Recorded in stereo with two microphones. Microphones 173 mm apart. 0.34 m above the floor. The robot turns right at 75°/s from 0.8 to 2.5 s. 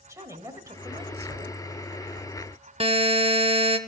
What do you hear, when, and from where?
0.1 s a woman speaking: 155° right, 1.1 m; by 1.6 s 100° right, 1.1 m
2.8 s a buzzer: 35° right (ahead or behind), 0.5 m